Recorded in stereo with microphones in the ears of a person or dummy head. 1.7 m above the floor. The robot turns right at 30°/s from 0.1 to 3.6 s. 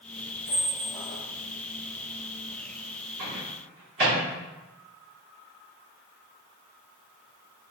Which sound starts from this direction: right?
A microwave, at 3.2 s.